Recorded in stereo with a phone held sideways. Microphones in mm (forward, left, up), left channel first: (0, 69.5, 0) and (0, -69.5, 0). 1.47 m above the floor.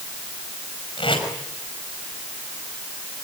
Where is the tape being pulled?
35° left (ahead or behind), 5.5 m.